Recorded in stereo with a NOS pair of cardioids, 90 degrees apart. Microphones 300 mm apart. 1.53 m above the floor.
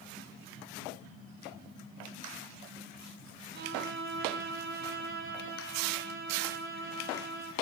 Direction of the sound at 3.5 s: 45° right.